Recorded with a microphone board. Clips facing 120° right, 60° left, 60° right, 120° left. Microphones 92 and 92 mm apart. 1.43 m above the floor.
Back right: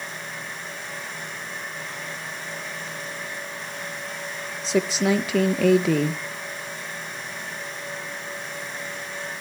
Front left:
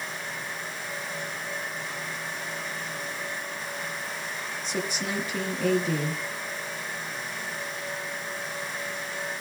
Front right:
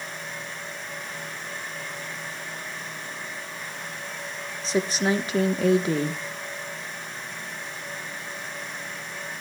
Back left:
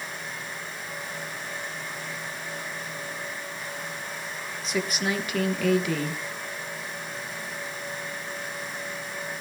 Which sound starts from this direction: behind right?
A woman speaking, at 4.6 s.